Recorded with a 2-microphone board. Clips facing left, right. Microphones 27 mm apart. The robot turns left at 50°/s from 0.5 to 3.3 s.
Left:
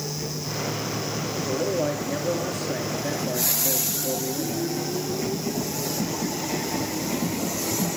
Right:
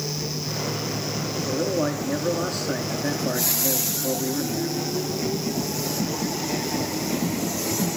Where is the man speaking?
25° right, 6 m; by 4.7 s 115° right, 6 m.